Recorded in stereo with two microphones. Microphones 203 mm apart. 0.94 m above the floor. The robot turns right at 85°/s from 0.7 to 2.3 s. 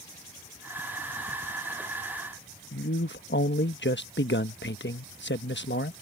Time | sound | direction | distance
2.7 | a man speaking | 65° left (ahead or behind) | ?